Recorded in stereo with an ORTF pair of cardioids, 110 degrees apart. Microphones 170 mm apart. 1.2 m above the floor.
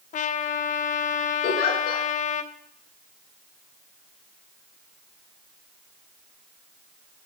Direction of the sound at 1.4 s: 65° left.